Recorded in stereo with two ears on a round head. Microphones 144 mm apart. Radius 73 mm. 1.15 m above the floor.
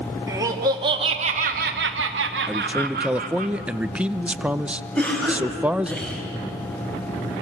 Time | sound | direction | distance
0.3 | laughter | 20° right (ahead or behind) | 2 m
2.5 | a man speaking | 10° right (ahead or behind) | 0.7 m
5.0 | a cough | 5° left (ahead or behind) | 5.5 m